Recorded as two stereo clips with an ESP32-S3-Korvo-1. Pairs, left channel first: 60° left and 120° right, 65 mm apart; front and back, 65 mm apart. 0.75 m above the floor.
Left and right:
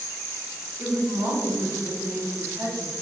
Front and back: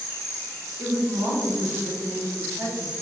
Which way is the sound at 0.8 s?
165° right.